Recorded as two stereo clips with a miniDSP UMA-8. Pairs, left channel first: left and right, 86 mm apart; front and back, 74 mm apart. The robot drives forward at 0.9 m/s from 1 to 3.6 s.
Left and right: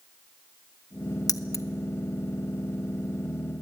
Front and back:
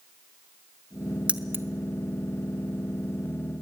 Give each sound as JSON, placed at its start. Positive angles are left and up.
{"t": 1.3, "sound": "keys jangling", "azimuth_deg": 110, "distance_m": 0.7}